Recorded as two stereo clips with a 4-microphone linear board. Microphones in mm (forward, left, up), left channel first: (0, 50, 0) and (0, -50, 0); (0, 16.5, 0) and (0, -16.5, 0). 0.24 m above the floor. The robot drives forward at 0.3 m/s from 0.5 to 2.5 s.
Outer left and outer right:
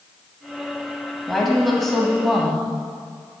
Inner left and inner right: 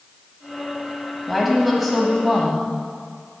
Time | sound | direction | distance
1.3 | a woman speaking | centre (ahead or behind) | 1.1 m